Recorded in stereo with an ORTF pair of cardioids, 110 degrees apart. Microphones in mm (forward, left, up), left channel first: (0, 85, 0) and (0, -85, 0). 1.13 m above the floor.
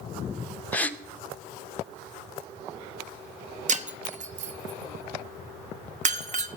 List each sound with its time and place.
0.7 s a gasp: 10° left, 0.6 m
3.7 s breaking glass: 45° right, 0.6 m